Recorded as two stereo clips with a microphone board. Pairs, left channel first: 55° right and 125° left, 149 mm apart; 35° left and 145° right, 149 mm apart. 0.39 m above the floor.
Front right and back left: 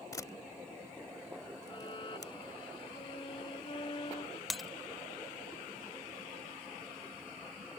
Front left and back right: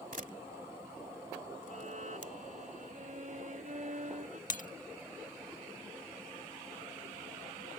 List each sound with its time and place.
0.1 s a camera shutter: 125° right
1.7 s a violin: 110° right
4.5 s breaking glass: 35° left